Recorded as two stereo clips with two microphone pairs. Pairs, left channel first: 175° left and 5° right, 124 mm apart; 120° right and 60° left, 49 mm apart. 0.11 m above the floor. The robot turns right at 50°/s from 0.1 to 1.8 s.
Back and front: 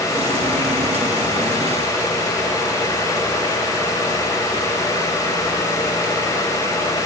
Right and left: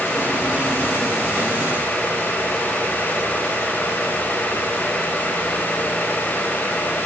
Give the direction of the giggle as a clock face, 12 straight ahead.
No giggle in this recording.